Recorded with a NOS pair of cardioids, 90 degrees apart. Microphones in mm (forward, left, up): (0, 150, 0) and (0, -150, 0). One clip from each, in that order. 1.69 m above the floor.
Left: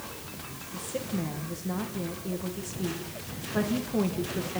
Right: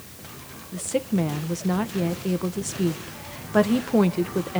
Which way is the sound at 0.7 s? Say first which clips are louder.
Right 9 dB; 60° right.